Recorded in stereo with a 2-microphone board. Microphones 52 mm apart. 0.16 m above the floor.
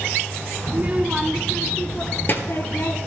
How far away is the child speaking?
About 1.0 m.